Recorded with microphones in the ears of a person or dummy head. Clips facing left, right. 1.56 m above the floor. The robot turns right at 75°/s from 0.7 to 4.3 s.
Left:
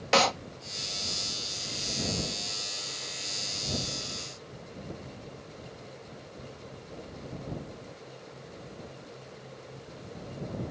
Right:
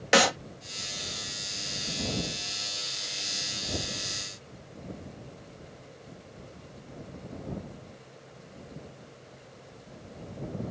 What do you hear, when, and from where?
0.1 s a clap: 15° right (ahead or behind)